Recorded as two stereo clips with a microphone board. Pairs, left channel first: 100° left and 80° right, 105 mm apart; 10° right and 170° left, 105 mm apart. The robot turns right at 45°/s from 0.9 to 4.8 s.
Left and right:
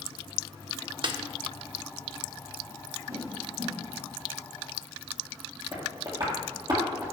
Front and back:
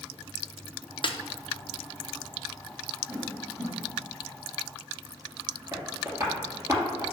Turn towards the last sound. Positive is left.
turn(degrees=-125)